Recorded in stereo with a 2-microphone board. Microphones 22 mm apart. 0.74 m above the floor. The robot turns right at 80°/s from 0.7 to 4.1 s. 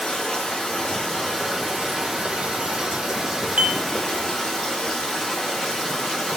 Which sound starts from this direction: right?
Dishes clattering, at 3.6 s.